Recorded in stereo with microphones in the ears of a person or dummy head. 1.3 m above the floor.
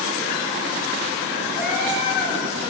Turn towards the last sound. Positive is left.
turn(degrees=-5)  # may be behind; listen again after turning